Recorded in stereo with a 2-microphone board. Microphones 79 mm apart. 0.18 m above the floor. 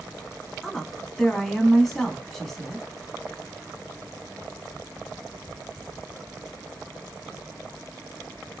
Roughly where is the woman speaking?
Centre.